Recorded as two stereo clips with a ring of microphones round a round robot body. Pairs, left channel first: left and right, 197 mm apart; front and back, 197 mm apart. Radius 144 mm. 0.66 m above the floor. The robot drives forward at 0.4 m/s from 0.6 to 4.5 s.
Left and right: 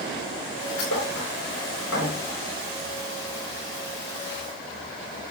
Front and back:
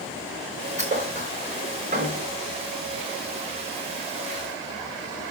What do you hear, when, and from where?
0.8 s a thud: 125° left, 6 m; by 2.2 s 130° left, 6.5 m